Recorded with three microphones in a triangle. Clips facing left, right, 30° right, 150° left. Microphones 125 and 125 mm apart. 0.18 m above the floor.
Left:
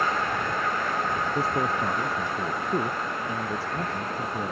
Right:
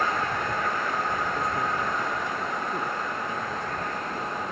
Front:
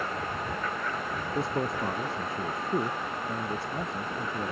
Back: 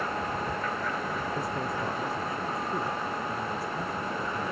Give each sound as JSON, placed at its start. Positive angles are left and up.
{"t": 1.4, "sound": "a man speaking", "azimuth_deg": 30}